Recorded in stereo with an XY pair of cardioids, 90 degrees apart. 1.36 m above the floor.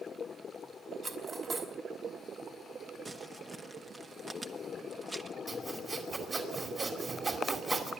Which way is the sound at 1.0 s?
45° right.